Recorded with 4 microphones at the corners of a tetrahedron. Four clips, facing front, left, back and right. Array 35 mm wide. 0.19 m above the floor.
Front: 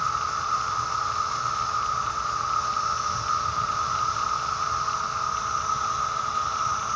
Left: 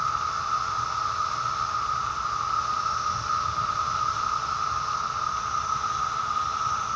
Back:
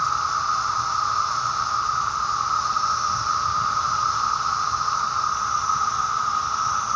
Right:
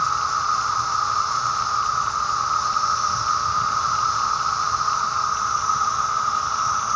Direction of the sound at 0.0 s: 120° right.